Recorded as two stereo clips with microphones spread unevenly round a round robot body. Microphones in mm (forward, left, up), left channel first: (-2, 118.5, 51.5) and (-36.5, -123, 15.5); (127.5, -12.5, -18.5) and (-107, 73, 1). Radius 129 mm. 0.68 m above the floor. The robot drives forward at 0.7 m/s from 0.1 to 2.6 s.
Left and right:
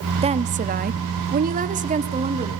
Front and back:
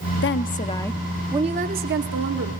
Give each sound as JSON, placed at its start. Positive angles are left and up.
{"t": 0.2, "sound": "a woman speaking", "azimuth_deg": -45, "distance_m": 0.8}